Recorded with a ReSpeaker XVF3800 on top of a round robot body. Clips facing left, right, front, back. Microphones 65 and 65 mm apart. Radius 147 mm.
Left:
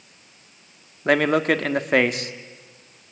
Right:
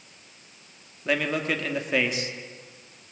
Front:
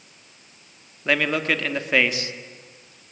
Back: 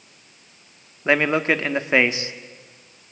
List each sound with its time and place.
1.1 s a man speaking: 120° left, 1.7 m